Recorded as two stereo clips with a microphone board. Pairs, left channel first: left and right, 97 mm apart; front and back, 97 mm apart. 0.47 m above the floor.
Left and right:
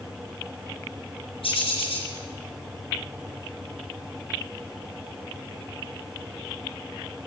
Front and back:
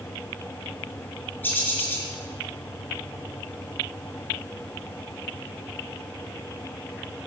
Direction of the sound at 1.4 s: 70° left.